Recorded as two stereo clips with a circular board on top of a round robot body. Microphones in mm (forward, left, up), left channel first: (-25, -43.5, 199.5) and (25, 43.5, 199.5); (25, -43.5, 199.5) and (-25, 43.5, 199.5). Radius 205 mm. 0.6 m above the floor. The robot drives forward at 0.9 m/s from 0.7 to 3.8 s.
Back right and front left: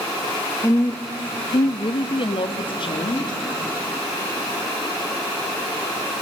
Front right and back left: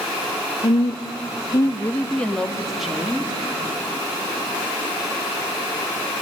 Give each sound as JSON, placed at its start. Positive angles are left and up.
{"t": 0.6, "sound": "a woman speaking", "azimuth_deg": -55, "distance_m": 1.2}